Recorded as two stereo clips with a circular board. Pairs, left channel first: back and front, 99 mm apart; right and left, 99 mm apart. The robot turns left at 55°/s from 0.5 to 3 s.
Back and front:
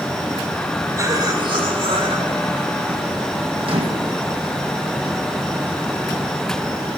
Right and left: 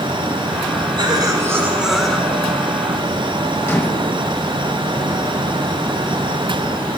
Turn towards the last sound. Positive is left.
turn(degrees=-25)